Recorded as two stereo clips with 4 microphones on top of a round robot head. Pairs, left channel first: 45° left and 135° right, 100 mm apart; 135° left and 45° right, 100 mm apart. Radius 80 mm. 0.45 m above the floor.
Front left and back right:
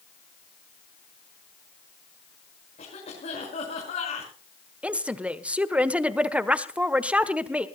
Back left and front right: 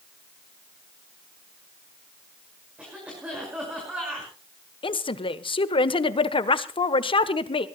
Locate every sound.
2.8 s a cough: 35° left, 6 m
4.8 s a woman speaking: 150° left, 1.4 m